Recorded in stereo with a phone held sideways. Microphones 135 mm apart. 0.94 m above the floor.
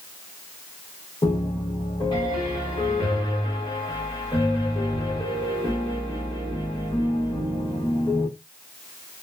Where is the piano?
35° left (ahead or behind), 1.2 m.